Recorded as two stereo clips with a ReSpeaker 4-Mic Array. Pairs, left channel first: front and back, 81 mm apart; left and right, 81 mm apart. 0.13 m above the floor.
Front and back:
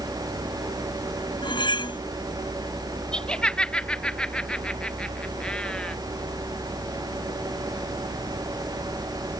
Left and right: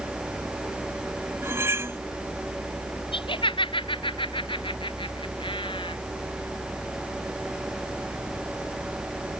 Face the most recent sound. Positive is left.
turn(degrees=80)